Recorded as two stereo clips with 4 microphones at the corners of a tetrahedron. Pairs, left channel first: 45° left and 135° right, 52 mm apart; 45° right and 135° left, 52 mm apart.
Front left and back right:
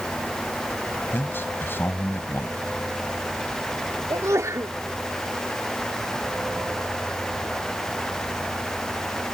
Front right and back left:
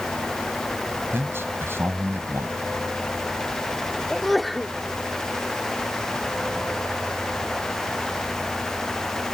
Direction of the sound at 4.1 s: 135° right.